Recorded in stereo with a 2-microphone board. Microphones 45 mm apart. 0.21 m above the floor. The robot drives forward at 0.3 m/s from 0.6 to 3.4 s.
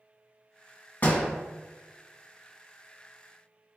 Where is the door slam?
45° left (ahead or behind), 1.2 m.